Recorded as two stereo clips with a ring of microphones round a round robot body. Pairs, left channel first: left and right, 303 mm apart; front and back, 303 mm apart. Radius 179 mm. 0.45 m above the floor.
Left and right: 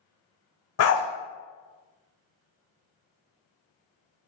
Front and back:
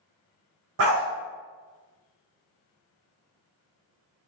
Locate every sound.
0.8 s a dog barking: 130° left, 0.9 m